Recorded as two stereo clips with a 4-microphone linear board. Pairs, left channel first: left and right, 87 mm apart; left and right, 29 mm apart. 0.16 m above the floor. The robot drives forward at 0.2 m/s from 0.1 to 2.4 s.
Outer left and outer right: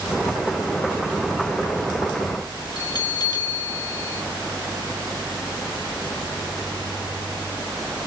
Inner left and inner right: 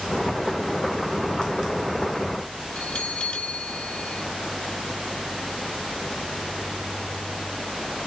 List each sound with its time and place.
2.8 s a bell: 50° left (ahead or behind), 1.6 m